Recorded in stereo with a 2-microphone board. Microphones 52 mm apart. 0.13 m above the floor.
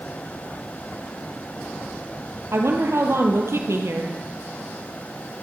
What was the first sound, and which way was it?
A woman speaking, 60° right (ahead or behind).